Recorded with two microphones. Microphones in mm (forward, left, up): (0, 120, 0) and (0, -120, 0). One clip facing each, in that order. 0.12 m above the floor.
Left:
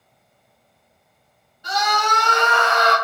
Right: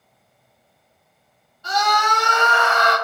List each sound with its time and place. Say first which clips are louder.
1.6 s a scream: right 1 dB; 15° left (ahead or behind), 1.1 m; by 2.9 s 45° right (ahead or behind), 1.4 m